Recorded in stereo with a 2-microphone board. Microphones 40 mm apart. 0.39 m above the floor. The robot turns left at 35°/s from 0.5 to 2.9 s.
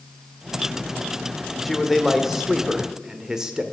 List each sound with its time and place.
1.6 s a man speaking: centre (ahead or behind), 1.2 m; by 3.6 s 15° right (ahead or behind), 1.2 m